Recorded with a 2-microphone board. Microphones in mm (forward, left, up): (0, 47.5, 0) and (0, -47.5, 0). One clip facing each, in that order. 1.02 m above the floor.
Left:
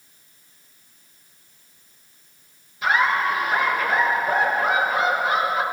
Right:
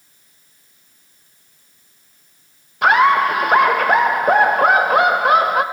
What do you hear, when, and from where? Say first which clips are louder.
2.8 s laughter: right 7 dB; 60° right (ahead or behind), 1.1 m